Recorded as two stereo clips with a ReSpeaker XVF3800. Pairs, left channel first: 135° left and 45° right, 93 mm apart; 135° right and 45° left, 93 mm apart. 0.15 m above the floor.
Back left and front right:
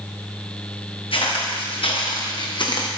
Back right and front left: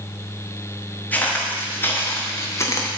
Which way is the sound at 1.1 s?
150° left.